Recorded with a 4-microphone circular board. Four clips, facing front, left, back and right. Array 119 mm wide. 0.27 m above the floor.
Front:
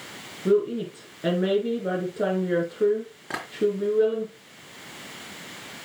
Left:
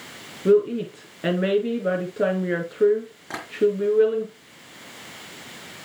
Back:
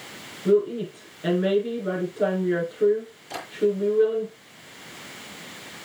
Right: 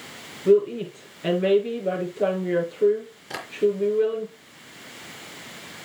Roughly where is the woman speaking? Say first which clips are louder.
Even, back 1 dB; left.